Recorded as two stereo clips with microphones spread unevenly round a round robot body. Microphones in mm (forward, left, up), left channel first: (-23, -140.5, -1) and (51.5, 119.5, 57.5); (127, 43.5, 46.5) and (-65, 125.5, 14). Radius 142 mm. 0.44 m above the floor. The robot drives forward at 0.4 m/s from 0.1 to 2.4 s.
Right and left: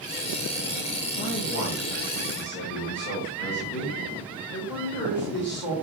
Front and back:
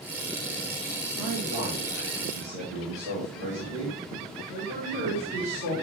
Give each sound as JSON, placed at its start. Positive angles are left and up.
{"t": 1.2, "sound": "a man speaking", "azimuth_deg": -120, "distance_m": 3.5}